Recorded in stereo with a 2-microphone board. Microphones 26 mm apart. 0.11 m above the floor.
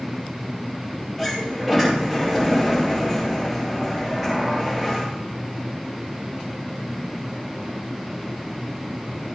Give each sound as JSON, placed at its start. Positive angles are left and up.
{"t": 1.2, "sound": "a sliding door", "side_deg": 0, "distance_m": 10.0}